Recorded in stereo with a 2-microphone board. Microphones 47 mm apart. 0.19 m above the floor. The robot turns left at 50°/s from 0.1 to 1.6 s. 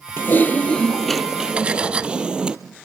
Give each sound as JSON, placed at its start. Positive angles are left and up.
{"t": 0.2, "sound": "typing on a keyboard", "azimuth_deg": 50, "distance_m": 1.0}
{"t": 1.6, "sound": "cutlery clinking", "side_deg": -25, "distance_m": 0.7}